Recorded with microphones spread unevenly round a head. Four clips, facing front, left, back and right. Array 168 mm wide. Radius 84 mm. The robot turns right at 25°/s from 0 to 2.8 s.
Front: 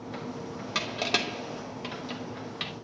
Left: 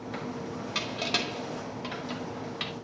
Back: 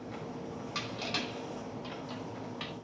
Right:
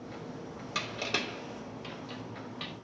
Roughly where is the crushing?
Ahead.